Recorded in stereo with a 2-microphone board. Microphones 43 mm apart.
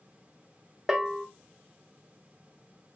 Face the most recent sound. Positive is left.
turn(degrees=-10)  # may be behind; listen again after turning